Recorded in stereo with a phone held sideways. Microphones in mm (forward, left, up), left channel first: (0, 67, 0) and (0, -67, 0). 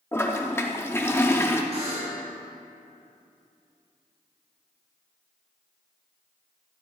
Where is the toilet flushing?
15° left (ahead or behind), 0.6 m.